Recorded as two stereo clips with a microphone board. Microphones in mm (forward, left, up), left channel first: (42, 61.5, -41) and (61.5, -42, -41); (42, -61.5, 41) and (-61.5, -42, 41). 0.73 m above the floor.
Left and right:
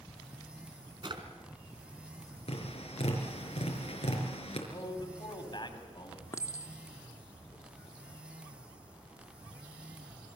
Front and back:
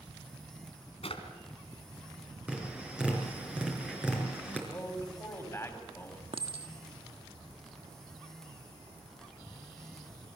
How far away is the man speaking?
About 5 m.